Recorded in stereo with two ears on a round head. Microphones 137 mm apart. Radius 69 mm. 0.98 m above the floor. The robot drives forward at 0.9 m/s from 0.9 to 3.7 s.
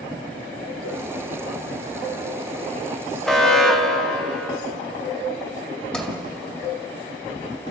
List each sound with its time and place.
3.2 s an alarm: 5° left (ahead or behind), 1.7 m
5.9 s a sliding door: 10° left (ahead or behind), 2 m